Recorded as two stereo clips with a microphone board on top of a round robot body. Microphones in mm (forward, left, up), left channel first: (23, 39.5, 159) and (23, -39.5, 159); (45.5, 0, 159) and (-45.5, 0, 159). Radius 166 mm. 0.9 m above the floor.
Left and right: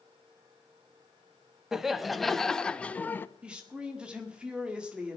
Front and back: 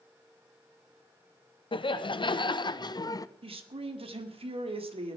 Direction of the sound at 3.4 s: 170° right.